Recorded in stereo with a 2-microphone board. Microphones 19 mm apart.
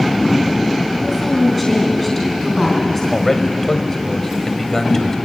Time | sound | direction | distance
1.0 | a woman speaking | 5° left (ahead or behind) | 3.5 m
3.1 | a man speaking | 20° left (ahead or behind) | 2.0 m